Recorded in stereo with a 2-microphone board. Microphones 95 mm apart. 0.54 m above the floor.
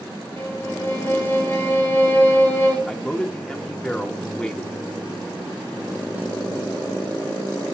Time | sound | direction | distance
0.4 | a violin | 30° left (ahead or behind) | 3.5 m
2.9 | a man speaking | 10° left (ahead or behind) | 1.1 m